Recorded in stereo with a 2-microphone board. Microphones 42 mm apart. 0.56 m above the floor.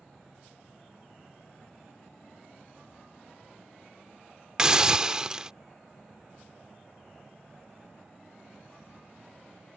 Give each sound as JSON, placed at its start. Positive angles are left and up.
{"t": 4.6, "sound": "a hiss", "side_deg": -20}